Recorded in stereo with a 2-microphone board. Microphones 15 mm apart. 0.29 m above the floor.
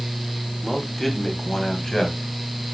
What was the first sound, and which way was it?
A man speaking, 20° left (ahead or behind).